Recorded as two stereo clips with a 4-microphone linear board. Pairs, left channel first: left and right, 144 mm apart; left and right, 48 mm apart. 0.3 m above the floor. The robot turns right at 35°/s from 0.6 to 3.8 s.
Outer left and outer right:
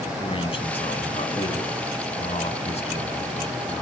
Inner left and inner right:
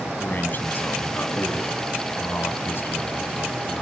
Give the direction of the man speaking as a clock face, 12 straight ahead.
10 o'clock.